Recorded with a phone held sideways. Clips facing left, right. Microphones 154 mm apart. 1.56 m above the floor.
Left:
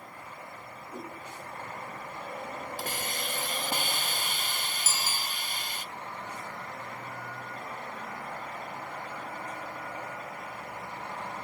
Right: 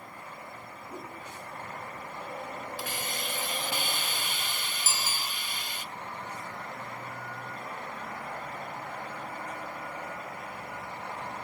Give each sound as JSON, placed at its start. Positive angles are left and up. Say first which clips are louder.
{"t": 0.9, "sound": "a whoosh", "louder": "left 1 dB", "side_deg": -25, "distance_m": 5.5}
{"t": 2.8, "sound": "a hiss", "louder": "left 1 dB", "side_deg": 45, "distance_m": 0.6}
{"t": 4.8, "sound": "a bicycle bell", "louder": "right 2 dB", "side_deg": -40, "distance_m": 2.5}